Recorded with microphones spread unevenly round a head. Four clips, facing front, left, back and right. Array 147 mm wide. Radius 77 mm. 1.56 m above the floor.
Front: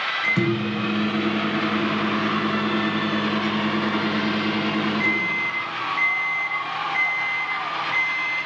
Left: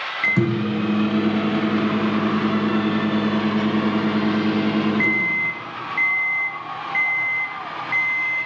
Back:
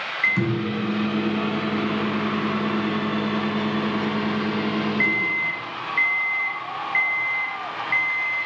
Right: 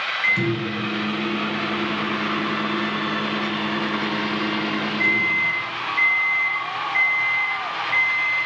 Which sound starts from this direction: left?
A microwave, at 0.2 s.